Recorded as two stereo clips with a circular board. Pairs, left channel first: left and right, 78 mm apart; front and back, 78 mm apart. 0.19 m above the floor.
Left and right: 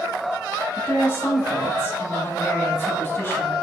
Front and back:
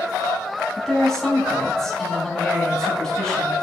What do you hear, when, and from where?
0.8 s a woman speaking: 75° left, 1.1 m